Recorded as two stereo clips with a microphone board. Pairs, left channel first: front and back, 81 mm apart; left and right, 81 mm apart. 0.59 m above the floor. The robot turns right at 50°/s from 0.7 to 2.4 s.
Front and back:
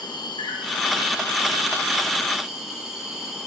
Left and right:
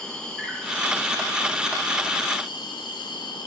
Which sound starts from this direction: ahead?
An insect, at 0.0 s.